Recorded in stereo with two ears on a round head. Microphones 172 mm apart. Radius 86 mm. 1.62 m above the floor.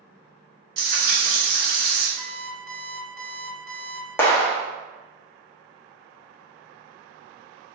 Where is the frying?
55° right (ahead or behind), 1.5 m.